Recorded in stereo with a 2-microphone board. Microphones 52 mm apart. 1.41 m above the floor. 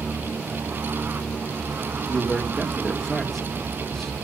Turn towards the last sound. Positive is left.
turn(degrees=5)  # may be behind; listen again after turning